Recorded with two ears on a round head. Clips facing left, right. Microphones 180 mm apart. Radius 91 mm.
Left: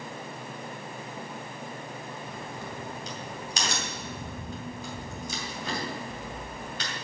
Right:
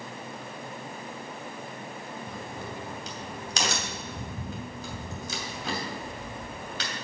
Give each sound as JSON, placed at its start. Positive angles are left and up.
{"t": 2.3, "sound": "a crack", "side_deg": -60, "distance_m": 2.5}